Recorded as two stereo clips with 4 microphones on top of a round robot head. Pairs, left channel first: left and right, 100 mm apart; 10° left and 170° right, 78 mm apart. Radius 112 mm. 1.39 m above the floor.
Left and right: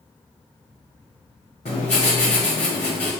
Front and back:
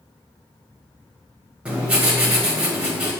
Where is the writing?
120° left, 1.4 m.